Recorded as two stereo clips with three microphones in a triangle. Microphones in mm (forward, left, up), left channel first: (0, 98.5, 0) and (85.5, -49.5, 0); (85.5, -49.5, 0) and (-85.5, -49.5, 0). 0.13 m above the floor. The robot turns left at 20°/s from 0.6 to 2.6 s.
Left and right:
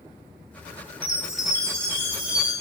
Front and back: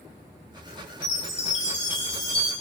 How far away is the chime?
About 0.6 m.